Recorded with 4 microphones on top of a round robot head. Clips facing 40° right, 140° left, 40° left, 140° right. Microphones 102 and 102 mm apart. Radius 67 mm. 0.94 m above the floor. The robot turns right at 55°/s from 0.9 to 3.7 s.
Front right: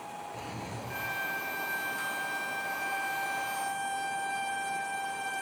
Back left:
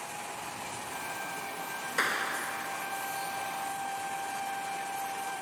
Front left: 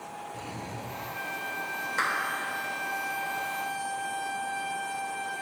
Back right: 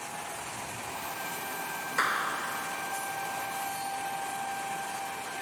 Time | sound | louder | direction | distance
0.3 | a drawer | even, front left 1 dB | 5° left | ?
2.0 | a clap | back left 3 dB, back right 1 dB | 130° left | ?